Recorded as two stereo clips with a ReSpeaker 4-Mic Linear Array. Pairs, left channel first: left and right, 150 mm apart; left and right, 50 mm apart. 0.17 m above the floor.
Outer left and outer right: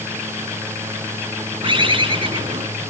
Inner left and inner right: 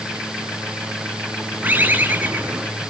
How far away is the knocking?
No knocking in this recording.